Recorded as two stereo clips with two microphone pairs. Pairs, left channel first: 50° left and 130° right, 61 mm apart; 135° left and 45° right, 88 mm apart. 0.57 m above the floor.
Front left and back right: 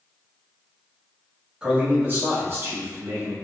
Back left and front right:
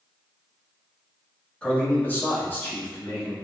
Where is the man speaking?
Straight behind, 0.9 m; by 3.4 s 160° right, 2 m.